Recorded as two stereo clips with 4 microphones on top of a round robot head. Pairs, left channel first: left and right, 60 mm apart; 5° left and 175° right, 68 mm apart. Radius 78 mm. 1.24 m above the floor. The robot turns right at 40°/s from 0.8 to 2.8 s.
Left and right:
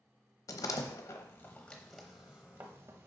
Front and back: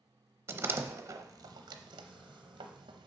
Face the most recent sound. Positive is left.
turn(degrees=-145)